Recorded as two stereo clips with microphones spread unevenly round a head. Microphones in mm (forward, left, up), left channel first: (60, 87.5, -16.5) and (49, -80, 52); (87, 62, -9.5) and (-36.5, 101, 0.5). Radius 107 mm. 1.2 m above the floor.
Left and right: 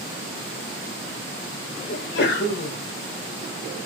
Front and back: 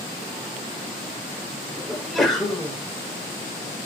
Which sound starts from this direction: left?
A sneeze, at 1.9 s.